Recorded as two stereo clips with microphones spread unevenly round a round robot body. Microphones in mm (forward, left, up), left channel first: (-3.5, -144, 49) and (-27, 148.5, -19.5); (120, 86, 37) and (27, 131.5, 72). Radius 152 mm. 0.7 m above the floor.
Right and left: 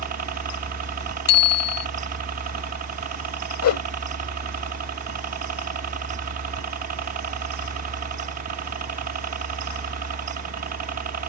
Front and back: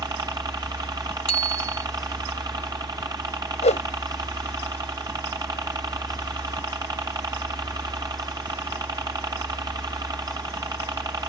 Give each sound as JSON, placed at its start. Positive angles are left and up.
{"t": 0.0, "sound": "a helicopter", "azimuth_deg": 100}
{"t": 1.3, "sound": "a bicycle bell", "azimuth_deg": -60}
{"t": 3.6, "sound": "a whoosh", "azimuth_deg": -40}